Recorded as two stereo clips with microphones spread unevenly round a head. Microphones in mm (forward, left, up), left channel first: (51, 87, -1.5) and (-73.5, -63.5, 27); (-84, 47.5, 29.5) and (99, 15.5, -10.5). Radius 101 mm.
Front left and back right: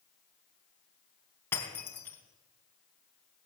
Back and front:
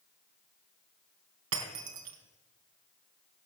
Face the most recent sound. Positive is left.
turn(degrees=-35)